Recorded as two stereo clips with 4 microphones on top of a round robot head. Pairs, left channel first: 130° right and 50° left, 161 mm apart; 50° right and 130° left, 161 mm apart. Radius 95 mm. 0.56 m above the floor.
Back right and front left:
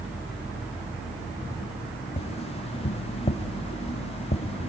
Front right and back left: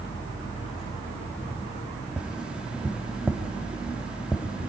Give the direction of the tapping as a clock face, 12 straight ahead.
5 o'clock.